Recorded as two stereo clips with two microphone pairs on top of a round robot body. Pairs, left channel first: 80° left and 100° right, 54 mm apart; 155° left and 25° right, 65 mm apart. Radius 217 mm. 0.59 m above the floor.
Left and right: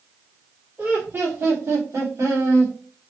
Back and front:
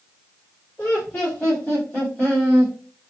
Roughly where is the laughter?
Behind right.